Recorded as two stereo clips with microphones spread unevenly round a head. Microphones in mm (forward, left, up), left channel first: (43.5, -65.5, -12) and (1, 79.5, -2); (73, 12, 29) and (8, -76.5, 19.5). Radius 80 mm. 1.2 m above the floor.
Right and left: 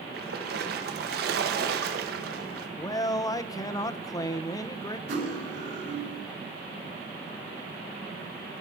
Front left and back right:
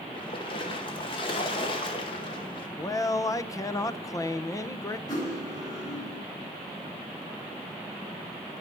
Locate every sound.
0.1 s a splash: 100° left, 1.2 m
2.8 s a man speaking: 10° right, 0.7 m
5.1 s cutlery clinking: 120° left, 3.5 m